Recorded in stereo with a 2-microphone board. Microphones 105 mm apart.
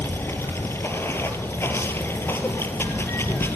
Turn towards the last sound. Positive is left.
turn(degrees=20)  # may be behind; listen again after turning